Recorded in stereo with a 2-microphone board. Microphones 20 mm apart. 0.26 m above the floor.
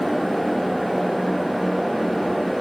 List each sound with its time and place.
Only background noise.